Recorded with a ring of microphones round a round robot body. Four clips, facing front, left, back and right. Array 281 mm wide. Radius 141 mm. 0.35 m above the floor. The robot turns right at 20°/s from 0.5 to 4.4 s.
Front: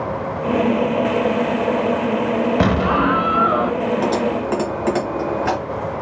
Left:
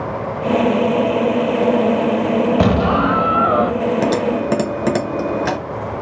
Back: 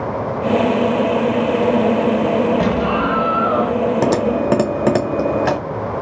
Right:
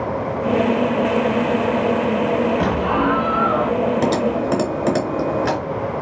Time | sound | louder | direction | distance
2.6 | an explosion | left 3 dB, even | 65° left | 0.5 m
4.0 | typing on a keyboard | left 1 dB, back 3 dB | 160° left | 0.7 m